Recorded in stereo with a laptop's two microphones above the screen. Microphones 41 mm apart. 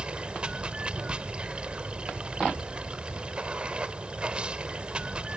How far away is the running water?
About 1.0 m.